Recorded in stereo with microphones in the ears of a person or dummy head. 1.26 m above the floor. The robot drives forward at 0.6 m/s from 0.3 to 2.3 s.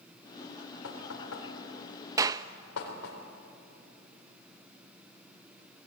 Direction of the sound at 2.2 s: 15° right (ahead or behind).